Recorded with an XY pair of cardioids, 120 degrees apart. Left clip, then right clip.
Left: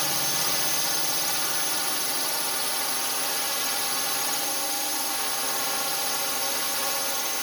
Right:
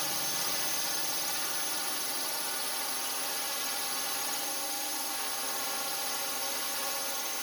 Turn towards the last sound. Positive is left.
turn(degrees=40)